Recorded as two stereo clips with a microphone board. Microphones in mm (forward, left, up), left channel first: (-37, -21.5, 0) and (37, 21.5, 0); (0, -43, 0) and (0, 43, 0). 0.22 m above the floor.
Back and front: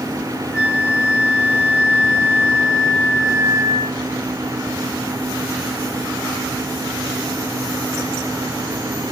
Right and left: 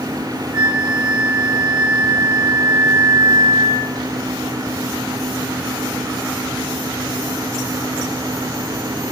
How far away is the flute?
About 1.9 m.